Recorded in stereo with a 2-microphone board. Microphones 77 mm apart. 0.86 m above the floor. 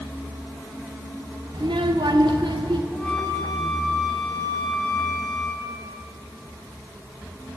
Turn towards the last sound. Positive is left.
turn(degrees=5)  # may be behind; listen again after turning